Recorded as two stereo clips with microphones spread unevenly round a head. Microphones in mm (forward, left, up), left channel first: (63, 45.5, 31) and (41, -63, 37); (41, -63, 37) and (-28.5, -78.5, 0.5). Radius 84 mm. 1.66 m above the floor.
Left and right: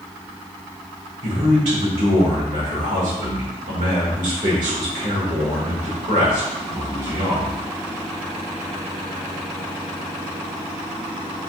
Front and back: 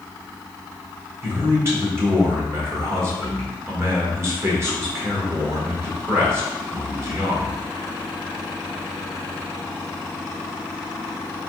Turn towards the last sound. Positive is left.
turn(degrees=-110)